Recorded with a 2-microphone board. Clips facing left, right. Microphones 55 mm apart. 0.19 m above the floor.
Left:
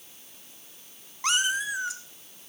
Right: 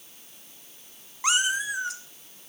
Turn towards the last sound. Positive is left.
turn(degrees=5)  # may be behind; listen again after turning